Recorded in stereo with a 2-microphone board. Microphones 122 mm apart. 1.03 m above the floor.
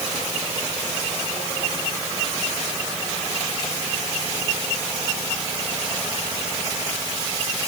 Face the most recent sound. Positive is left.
No sound to turn to.